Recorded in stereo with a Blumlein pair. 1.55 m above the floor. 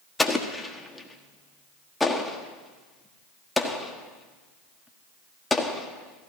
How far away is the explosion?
About 1.5 m.